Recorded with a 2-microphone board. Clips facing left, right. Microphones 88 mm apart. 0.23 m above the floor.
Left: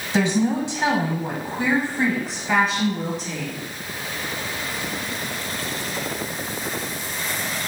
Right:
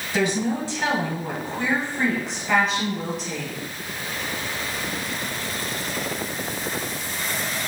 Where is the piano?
No piano in this recording.